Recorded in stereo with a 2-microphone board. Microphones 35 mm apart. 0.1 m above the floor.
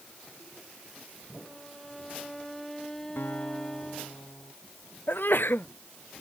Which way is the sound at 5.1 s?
70° left (ahead or behind).